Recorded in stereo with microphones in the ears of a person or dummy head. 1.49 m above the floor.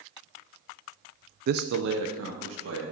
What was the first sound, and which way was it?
A man speaking, 50° right (ahead or behind).